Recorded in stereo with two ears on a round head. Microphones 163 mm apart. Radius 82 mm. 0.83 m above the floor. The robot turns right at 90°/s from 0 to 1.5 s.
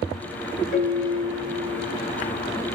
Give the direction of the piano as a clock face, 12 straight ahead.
10 o'clock.